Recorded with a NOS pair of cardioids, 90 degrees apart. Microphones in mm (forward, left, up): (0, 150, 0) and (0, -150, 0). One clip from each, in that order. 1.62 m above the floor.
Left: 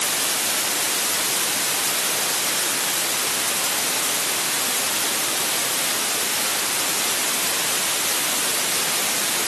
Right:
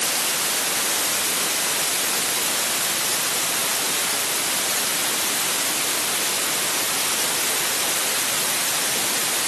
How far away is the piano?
No piano in this recording.